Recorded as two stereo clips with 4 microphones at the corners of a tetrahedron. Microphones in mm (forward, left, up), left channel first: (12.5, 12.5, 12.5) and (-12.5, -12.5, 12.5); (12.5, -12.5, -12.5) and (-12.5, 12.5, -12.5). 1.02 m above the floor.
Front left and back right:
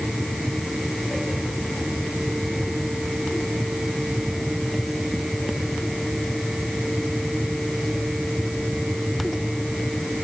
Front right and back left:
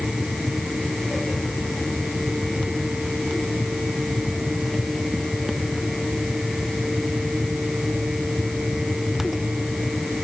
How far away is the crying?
I don't hear crying.